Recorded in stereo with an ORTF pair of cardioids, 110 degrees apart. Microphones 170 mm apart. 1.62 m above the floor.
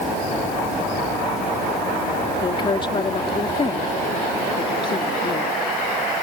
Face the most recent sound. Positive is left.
turn(degrees=30)